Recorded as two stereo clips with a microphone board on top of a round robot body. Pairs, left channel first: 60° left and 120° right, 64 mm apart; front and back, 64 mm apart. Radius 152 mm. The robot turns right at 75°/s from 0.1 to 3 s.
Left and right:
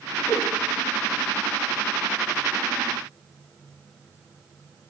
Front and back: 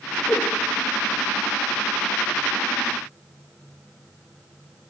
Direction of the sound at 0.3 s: 55° left.